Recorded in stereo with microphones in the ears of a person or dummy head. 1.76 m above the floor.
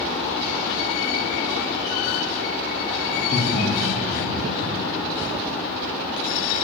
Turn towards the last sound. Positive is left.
turn(degrees=40)  # may be behind; listen again after turning